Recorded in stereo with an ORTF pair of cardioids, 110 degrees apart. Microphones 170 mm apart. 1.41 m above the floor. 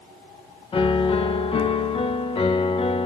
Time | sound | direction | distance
0.7 | a piano | 30° left | 1.4 m